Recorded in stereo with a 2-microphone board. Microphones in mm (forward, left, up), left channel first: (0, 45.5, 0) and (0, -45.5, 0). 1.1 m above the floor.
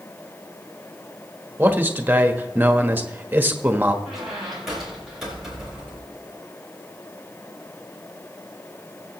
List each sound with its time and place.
1.6 s a man speaking: 20° right (ahead or behind), 1.3 m
4.0 s a squeak: 5° right (ahead or behind), 5 m